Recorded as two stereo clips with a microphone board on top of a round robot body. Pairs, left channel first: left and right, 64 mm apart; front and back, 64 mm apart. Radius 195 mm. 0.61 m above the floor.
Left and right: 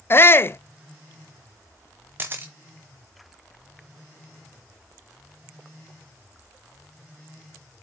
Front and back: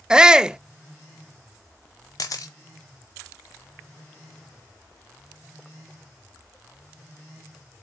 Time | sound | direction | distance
0.1 | a shout | 110° left | 0.7 m
2.2 | a camera shutter | 35° right | 0.6 m